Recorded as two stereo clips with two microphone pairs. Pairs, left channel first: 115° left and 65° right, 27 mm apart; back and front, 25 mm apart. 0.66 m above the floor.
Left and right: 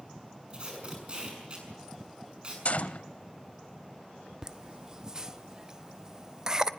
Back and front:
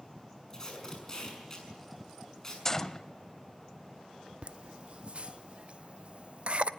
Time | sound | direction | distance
0.5 | tape being pulled | 115° right | 6.5 m
2.6 | a gunshot | 110° left | 0.7 m
4.4 | laughter | 5° right | 0.8 m